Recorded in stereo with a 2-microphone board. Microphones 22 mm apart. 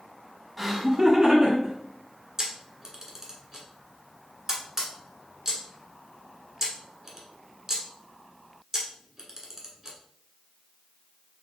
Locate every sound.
0.6 s laughter: 10° right (ahead or behind), 1.1 m; by 1.7 s 40° right (ahead or behind), 2 m
2.4 s a camera shutter: 25° right (ahead or behind), 1.3 m